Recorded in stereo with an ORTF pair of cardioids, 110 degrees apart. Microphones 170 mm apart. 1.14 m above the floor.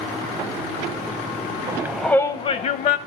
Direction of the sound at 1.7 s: 25° right.